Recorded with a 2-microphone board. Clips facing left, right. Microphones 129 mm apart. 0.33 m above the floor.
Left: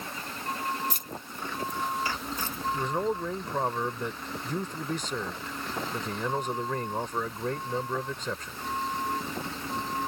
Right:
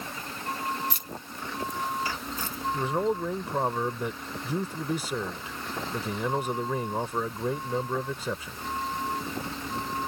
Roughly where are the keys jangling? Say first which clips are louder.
Even; left.